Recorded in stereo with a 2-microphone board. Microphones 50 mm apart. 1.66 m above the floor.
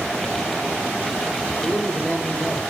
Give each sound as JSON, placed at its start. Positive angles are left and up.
{"t": 1.6, "sound": "a man speaking", "side_deg": 25, "distance_m": 1.7}